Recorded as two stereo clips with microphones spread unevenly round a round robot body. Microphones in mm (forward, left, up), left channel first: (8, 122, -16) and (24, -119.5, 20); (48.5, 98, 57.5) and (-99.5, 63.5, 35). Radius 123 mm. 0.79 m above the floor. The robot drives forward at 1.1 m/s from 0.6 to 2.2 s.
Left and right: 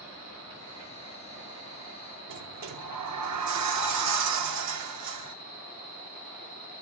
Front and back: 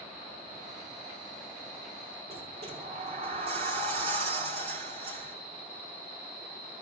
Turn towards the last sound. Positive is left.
turn(degrees=-110)